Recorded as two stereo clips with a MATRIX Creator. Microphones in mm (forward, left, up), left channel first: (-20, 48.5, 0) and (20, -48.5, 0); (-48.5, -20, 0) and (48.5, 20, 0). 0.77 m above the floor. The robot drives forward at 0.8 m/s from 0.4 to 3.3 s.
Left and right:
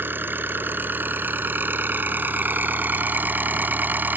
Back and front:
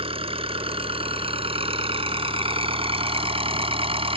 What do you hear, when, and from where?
0.0 s an engine running: 5° left